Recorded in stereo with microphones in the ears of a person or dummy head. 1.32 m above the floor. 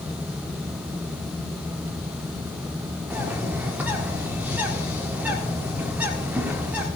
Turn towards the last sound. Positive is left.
turn(degrees=-10)  # may be behind; listen again after turning